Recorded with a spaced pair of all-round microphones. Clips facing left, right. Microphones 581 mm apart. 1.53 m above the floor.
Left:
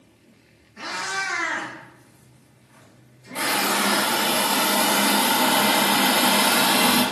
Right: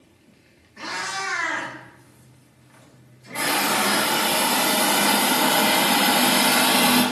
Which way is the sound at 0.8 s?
10° left (ahead or behind).